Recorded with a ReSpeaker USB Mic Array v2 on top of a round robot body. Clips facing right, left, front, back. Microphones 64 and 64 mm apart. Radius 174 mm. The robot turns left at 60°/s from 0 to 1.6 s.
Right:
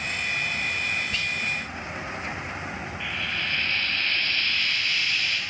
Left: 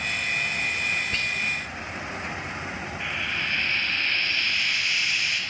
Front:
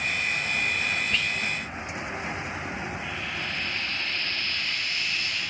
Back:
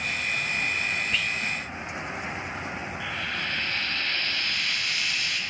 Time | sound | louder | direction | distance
1.1 | whispering | left 1 dB, even | 95° left | 0.7 m
3.0 | frying | left 1 dB, back 1 dB | 165° left | 1.4 m